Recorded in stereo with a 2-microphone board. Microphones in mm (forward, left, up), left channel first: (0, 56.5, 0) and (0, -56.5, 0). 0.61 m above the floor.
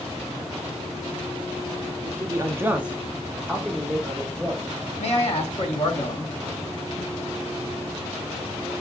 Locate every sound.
2.0 s a man speaking: 25° right (ahead or behind), 0.7 m; by 4.6 s 10° left (ahead or behind), 1.9 m
5.0 s a man speaking: 65° left (ahead or behind), 1.3 m